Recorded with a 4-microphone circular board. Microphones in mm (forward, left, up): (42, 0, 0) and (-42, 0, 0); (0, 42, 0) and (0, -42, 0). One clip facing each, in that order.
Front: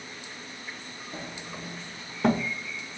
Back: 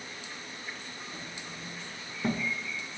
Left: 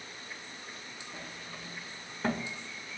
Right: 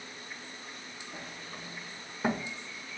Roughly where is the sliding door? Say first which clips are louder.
Front 4 dB, right 2 dB; ahead.